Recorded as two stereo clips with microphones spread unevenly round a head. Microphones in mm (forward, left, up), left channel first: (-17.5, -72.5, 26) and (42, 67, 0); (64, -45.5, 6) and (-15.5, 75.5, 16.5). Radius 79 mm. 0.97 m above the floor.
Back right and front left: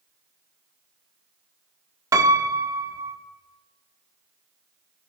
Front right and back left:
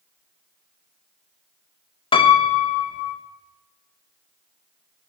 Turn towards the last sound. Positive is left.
turn(degrees=0)